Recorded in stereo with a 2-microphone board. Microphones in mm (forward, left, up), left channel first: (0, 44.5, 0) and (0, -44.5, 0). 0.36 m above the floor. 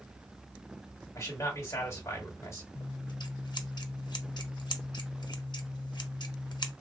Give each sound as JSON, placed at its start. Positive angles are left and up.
{"t": 1.1, "sound": "a man speaking", "side_deg": 35, "distance_m": 1.8}
{"t": 2.8, "sound": "scissors", "side_deg": 55, "distance_m": 0.5}